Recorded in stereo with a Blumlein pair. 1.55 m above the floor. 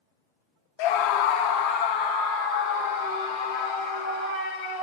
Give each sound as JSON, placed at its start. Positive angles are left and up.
{"t": 0.8, "sound": "a scream", "azimuth_deg": 45, "distance_m": 0.5}